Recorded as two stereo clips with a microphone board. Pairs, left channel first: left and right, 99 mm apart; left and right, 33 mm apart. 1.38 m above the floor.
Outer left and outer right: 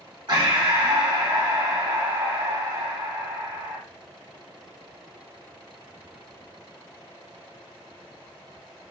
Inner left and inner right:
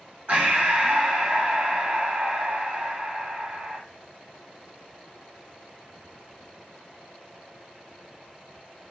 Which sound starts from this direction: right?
Breathing, at 0.3 s.